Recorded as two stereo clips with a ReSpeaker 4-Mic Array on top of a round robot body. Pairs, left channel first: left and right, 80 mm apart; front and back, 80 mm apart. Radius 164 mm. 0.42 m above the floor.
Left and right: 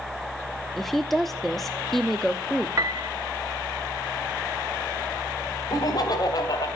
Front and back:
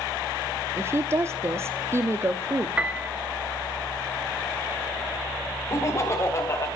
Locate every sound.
0.8 s a woman speaking: 175° left, 1.2 m
2.8 s a piano: 110° right, 1.2 m
5.7 s laughter: 55° left, 2.5 m